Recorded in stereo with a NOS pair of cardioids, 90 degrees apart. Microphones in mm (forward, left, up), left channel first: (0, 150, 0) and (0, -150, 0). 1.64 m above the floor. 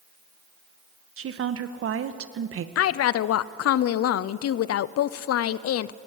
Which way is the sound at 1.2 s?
55° right.